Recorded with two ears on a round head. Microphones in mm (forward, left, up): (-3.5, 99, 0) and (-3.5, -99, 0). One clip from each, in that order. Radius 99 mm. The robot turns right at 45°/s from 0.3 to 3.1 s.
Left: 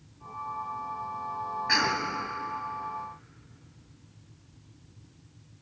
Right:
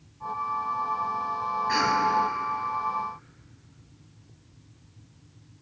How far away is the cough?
About 3.5 m.